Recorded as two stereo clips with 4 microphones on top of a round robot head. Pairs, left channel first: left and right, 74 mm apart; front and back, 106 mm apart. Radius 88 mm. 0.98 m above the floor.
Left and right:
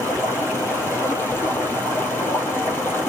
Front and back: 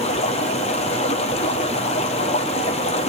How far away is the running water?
About 3 m.